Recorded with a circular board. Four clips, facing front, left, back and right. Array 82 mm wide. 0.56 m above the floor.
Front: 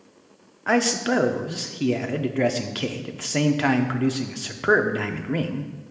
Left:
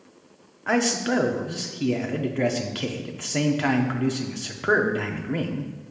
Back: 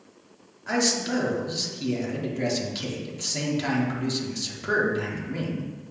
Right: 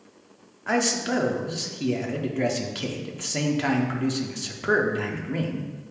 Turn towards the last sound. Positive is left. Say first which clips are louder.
# left 2 dB, front 5 dB
turn(degrees=10)